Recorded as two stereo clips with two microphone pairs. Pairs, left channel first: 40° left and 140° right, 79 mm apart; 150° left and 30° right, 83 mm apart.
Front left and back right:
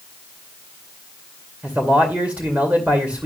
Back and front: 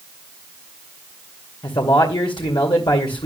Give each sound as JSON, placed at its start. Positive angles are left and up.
{"t": 1.6, "sound": "a man speaking", "azimuth_deg": 150, "distance_m": 2.5}